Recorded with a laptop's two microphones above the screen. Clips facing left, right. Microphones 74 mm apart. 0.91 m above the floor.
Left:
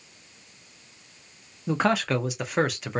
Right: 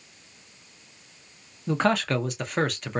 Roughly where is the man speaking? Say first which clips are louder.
Even; centre.